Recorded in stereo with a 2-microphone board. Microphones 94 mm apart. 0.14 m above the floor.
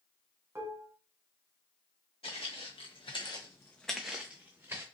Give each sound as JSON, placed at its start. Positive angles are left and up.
{"t": 0.6, "sound": "dishes clattering", "side_deg": -30, "distance_m": 0.8}
{"t": 2.2, "sound": "footsteps", "side_deg": 85, "distance_m": 1.4}